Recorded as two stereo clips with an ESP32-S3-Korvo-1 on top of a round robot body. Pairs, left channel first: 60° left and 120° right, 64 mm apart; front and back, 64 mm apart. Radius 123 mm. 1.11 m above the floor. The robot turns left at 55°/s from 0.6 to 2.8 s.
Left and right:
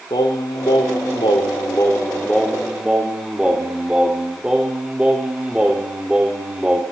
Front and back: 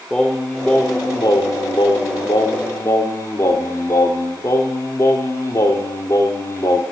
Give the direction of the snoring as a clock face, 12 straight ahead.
I don't hear snoring.